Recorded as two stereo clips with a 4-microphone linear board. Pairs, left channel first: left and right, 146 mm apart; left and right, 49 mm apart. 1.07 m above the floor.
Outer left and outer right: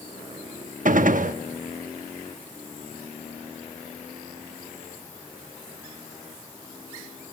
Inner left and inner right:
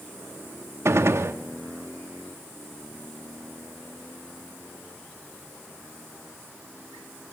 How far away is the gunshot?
About 0.8 m.